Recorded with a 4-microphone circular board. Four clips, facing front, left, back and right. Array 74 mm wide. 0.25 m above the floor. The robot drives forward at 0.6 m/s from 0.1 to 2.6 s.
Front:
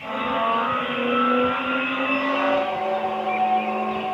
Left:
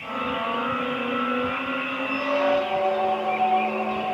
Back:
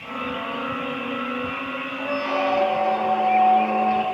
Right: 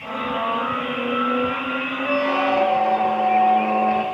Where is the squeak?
120° right, 4.5 m.